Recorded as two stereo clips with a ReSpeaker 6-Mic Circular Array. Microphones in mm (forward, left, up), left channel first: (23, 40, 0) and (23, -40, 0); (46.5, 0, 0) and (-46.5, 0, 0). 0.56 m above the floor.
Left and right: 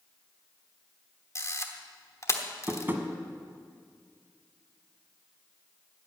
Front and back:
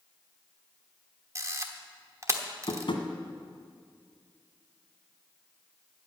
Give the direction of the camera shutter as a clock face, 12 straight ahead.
8 o'clock.